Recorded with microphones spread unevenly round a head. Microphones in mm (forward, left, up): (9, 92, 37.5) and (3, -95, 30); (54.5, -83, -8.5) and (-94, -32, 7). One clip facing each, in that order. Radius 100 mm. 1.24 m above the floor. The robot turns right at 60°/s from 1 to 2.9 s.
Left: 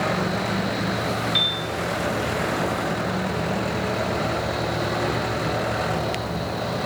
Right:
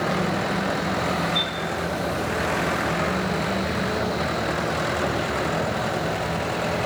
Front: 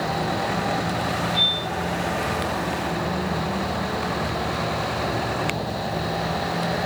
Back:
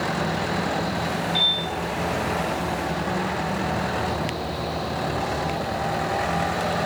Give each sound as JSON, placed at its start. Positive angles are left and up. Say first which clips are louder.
{"t": 1.4, "sound": "a piano", "louder": "right 1 dB, even", "azimuth_deg": 100, "distance_m": 1.5}